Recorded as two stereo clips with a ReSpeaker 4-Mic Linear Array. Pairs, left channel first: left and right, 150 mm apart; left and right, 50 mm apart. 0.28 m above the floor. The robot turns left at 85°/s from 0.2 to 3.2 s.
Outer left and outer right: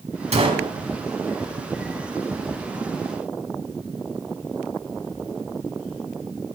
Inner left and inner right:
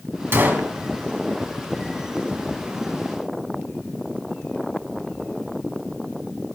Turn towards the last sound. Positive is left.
turn(degrees=-10)